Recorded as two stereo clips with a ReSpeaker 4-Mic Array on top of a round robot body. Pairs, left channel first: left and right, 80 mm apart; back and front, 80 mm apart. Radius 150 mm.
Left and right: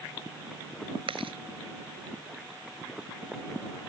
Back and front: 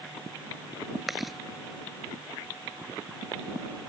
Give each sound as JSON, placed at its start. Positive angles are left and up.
{"t": 1.1, "sound": "chewing", "azimuth_deg": -90}